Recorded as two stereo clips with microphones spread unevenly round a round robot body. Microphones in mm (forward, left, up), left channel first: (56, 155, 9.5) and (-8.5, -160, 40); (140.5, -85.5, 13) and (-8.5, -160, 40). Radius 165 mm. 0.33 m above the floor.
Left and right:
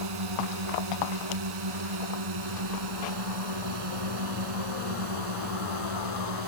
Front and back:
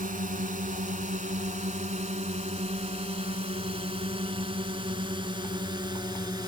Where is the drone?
115° right; by 6.5 s 85° right.